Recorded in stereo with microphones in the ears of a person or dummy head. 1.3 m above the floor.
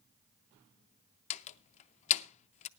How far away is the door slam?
About 0.6 m.